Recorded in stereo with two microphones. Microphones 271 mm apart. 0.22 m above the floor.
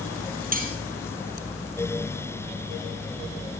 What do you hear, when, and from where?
0.5 s cutlery clinking: 30° right (ahead or behind), 4 m